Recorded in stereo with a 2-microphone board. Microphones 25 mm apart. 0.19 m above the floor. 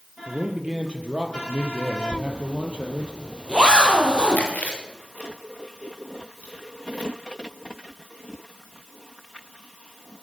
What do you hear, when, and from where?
0.3 s a man speaking: 35° right (ahead or behind), 4 m; by 3.1 s 45° right (ahead or behind), 5 m
2.1 s a zipper: 40° right (ahead or behind), 3 m
4.3 s chewing: 85° left, 6.5 m